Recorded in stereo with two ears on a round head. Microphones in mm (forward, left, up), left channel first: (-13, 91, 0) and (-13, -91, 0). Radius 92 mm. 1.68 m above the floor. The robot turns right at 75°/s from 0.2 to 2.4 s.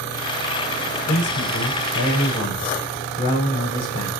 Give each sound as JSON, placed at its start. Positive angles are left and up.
{"t": 1.1, "sound": "a man speaking", "azimuth_deg": 55, "distance_m": 7.0}